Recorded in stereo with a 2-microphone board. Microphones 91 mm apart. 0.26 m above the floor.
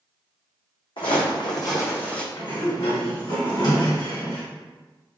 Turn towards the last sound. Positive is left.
turn(degrees=50)  # may be behind; listen again after turning